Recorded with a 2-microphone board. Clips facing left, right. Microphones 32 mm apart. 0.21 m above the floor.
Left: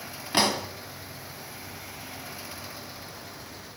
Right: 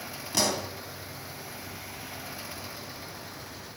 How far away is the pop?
About 2.0 m.